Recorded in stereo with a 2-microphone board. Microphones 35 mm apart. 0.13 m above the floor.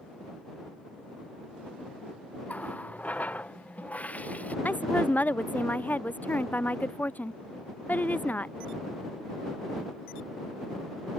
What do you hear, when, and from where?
2.5 s a running tap: 50° left (ahead or behind)
4.7 s a woman speaking: 55° left (ahead or behind)